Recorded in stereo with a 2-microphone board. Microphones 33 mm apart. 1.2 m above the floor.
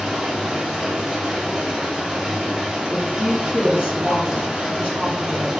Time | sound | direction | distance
0.0 | running water | 20° right (ahead or behind) | 1.3 m
2.9 | a woman speaking | 70° left (ahead or behind) | 2.0 m